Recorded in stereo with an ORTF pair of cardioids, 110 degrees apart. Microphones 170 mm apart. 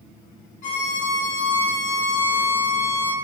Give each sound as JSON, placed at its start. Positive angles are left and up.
{"t": 0.6, "sound": "a violin", "azimuth_deg": 60, "distance_m": 1.1}